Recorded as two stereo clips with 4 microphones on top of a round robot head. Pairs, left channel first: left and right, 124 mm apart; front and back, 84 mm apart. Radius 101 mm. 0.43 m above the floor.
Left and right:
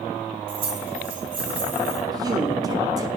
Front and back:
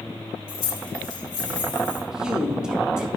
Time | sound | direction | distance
0.5 | keys jangling | 40° right | 2 m
2.1 | a man speaking | 105° right | 0.9 m